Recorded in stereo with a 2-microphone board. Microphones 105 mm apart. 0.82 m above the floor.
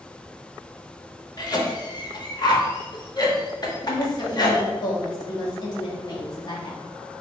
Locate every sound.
1.4 s a cough: 40° left (ahead or behind), 0.9 m
3.8 s a woman speaking: 40° left (ahead or behind), 1.1 m